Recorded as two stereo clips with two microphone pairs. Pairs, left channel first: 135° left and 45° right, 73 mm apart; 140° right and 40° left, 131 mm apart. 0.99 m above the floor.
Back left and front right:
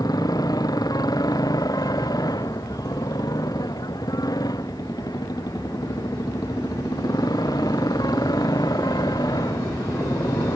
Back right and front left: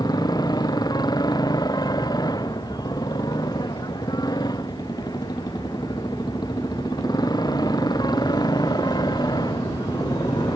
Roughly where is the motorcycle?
Behind.